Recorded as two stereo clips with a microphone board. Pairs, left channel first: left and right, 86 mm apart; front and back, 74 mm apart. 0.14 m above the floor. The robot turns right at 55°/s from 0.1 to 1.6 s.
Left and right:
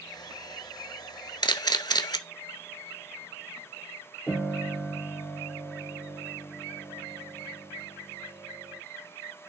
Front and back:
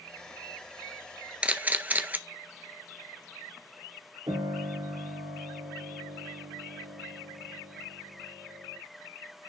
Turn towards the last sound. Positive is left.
turn(degrees=165)